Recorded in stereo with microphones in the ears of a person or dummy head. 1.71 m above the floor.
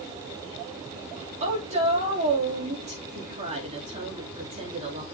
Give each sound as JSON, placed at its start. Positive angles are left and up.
{"t": 1.4, "sound": "a woman speaking", "side_deg": -40, "distance_m": 4.5}